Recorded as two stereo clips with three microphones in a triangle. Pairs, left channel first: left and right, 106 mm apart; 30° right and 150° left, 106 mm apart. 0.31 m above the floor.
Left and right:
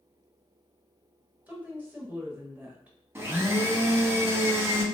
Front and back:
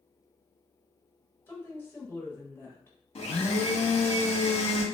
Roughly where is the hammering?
No hammering in this recording.